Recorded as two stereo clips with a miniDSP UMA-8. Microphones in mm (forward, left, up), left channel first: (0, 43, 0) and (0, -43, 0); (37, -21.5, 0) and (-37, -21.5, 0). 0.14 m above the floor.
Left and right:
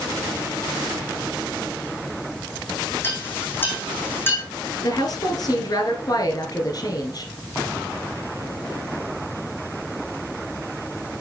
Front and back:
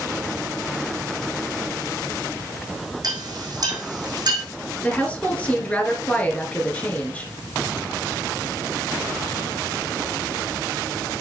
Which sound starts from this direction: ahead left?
A woman speaking, at 4.8 s.